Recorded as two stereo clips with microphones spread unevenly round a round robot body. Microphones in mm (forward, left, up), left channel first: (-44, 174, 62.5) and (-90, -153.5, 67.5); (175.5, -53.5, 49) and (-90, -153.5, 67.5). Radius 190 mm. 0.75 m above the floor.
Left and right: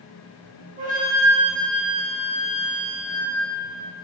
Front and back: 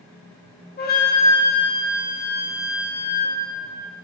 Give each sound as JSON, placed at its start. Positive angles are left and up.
{"t": 0.8, "sound": "a flute", "azimuth_deg": -30, "distance_m": 1.3}